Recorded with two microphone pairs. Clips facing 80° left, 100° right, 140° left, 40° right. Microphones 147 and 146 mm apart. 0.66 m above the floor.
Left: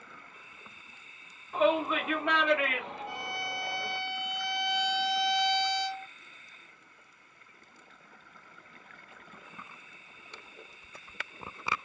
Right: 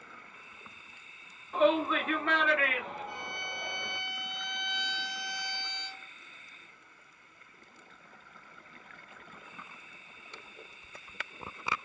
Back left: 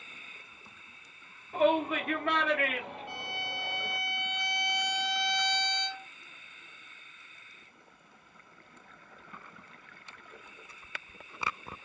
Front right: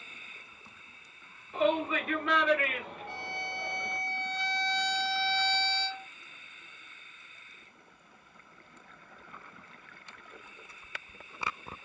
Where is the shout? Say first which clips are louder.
Even, back left 2 dB; 165° left, 1.8 m; by 4.0 s 130° left, 2.5 m.